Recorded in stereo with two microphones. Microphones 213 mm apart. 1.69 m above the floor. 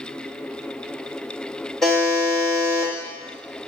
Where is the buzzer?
Centre (ahead or behind), 1.5 m.